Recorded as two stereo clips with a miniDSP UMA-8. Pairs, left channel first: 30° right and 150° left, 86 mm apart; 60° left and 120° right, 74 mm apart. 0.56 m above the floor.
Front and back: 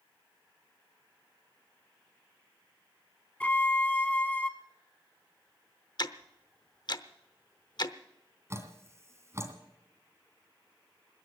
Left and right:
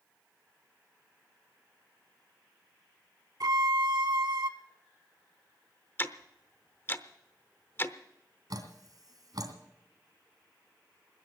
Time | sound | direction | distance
3.4 | a violin | 100° right | 0.7 m
6.0 | ticking | straight ahead | 0.8 m
8.5 | dripping | 150° right | 2 m